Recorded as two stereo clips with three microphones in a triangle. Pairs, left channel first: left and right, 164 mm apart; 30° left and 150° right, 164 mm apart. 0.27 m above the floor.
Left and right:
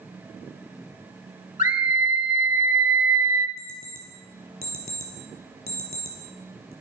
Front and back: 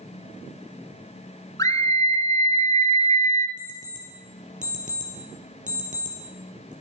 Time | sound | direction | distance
1.6 | a scream | 90° left | 1.5 m
3.6 | an alarm clock | 110° right | 3 m